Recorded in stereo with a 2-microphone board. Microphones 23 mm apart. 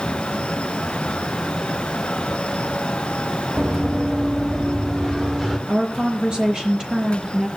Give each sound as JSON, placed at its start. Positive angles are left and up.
{"t": 3.6, "sound": "running footsteps", "side_deg": -30, "distance_m": 2.0}
{"t": 5.7, "sound": "a woman speaking", "side_deg": -40, "distance_m": 4.5}